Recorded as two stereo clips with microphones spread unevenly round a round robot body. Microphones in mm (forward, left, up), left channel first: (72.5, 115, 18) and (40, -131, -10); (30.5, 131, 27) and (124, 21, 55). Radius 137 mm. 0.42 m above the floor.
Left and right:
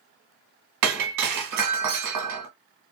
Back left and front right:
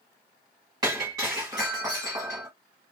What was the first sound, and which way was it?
Breaking glass, 125° right.